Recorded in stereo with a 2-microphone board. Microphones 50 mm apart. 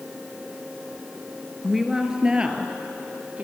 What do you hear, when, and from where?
1.6 s a woman speaking: centre (ahead or behind), 1.8 m; by 3.5 s 30° right (ahead or behind), 3.5 m